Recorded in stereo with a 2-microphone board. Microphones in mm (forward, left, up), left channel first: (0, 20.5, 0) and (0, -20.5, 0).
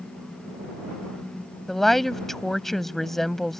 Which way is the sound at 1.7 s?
5° left (ahead or behind).